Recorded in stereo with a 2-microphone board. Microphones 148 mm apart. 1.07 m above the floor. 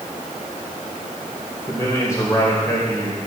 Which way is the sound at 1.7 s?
20° left (ahead or behind).